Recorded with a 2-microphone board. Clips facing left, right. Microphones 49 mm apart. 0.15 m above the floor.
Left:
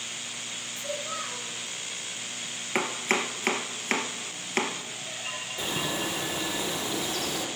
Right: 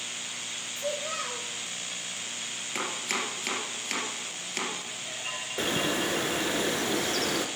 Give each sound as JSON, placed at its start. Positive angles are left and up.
{"t": 0.8, "sound": "a child speaking", "side_deg": -65, "distance_m": 2.5}
{"t": 2.8, "sound": "chopping", "side_deg": 40, "distance_m": 1.6}
{"t": 5.6, "sound": "a bird", "side_deg": -55, "distance_m": 1.4}